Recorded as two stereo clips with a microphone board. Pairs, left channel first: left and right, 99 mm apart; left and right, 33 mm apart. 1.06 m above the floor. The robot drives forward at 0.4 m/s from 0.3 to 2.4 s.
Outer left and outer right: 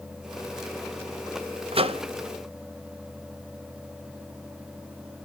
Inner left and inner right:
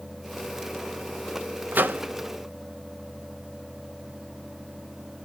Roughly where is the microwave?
Right.